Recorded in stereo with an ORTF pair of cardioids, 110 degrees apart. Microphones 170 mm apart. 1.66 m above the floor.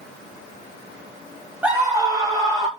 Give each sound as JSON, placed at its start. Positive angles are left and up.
{"t": 1.6, "sound": "a scream", "azimuth_deg": -10, "distance_m": 1.8}